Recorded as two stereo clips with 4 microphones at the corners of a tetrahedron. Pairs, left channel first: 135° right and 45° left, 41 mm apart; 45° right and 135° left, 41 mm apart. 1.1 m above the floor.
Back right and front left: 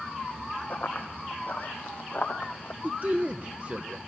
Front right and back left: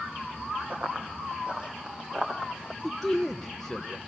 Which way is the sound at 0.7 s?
175° right.